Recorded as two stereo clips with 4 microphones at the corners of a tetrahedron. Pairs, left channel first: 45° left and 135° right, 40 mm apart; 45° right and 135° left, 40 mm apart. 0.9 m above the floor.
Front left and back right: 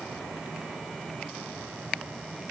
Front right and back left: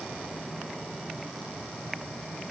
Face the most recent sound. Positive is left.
No sound to turn to.